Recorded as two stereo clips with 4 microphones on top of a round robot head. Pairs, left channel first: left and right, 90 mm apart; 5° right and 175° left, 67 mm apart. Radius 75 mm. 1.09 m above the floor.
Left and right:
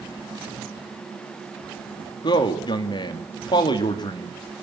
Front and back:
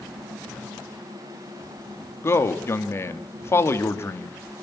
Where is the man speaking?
45° left, 2.5 m.